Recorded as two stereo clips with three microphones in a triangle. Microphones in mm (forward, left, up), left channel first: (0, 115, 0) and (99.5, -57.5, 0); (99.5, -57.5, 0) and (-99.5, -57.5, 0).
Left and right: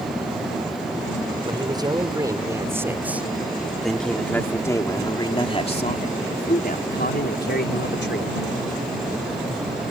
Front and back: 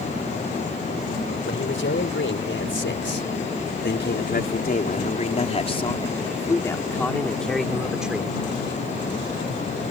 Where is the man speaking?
5° left; by 8.4 s 95° left.